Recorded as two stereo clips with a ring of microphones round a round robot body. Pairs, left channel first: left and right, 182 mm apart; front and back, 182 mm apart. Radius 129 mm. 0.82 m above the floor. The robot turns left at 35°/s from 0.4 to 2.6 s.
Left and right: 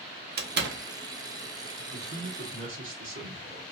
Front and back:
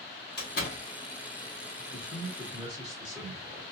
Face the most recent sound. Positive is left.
turn(degrees=-95)